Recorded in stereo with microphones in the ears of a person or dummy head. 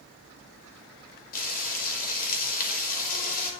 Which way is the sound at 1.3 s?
50° left (ahead or behind).